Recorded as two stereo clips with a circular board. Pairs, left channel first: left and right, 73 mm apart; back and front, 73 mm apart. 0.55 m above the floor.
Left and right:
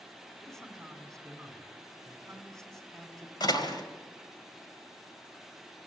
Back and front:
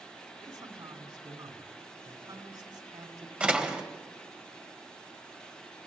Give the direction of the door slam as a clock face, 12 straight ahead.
10 o'clock.